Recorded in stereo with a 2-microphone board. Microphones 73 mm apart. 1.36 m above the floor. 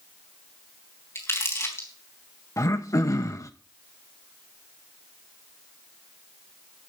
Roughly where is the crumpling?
Left.